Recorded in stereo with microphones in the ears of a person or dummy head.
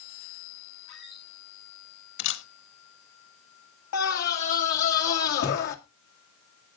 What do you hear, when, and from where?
0.9 s a squeak: 25° left (ahead or behind), 4.5 m
2.2 s a camera shutter: 65° left (ahead or behind), 1.5 m
3.9 s a scream: 60° left (ahead or behind), 1.9 m